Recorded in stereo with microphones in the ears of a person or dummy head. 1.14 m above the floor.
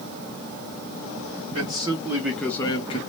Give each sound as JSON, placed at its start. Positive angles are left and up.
{"t": 1.5, "sound": "a man speaking", "side_deg": -20, "distance_m": 1.1}